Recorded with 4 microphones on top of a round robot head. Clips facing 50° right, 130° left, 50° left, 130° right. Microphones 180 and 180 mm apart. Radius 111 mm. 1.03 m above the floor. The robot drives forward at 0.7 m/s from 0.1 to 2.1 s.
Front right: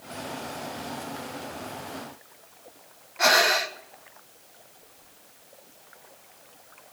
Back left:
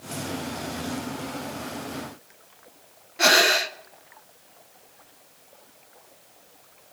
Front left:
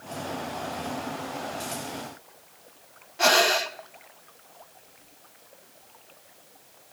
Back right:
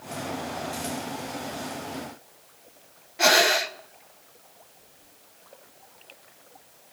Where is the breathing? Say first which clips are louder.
Back left 2 dB, back right 1 dB; 160° left, 0.7 m.